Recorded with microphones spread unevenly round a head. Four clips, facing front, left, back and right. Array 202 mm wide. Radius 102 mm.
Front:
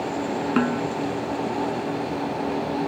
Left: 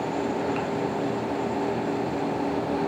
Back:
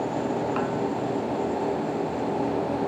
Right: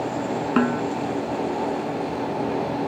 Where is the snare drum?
55° right.